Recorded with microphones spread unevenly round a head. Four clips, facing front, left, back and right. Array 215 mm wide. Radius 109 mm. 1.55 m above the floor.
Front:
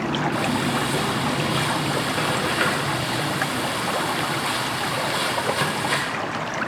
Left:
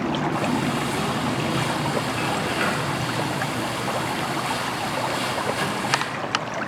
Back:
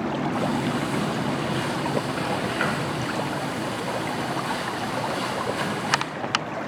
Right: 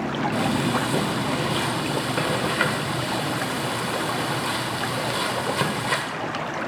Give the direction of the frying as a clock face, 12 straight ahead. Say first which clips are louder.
Even, front 2 dB; 3 o'clock.